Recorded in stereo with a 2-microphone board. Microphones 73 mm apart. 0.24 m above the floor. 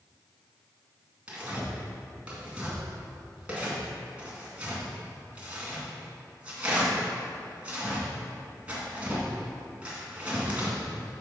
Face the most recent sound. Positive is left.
turn(degrees=-20)  # may be behind; listen again after turning